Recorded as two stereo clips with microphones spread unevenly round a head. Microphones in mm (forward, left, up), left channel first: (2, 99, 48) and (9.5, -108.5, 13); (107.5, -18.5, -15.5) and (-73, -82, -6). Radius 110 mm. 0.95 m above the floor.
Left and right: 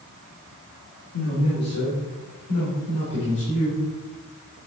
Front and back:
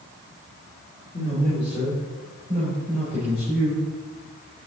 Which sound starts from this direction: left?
A man speaking, at 1.1 s.